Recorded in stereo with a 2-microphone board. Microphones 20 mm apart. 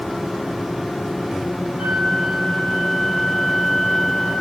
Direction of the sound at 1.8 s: 50° right (ahead or behind).